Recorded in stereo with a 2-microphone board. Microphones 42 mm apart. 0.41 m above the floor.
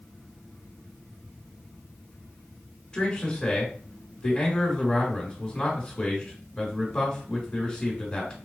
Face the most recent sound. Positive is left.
turn(degrees=20)  # may be behind; listen again after turning